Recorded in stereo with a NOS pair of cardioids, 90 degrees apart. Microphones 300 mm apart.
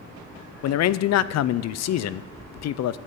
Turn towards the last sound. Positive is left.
turn(degrees=60)